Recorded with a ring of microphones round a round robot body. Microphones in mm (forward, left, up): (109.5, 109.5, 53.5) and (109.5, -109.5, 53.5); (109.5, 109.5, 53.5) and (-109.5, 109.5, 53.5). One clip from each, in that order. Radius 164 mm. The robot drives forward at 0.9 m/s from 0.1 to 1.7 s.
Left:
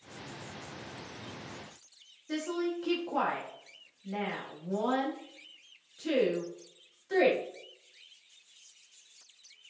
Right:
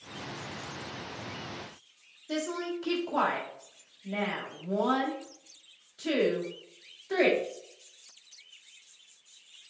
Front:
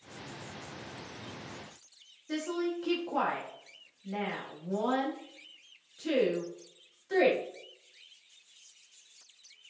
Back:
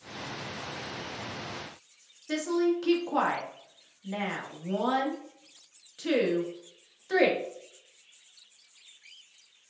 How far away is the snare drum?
No snare drum in this recording.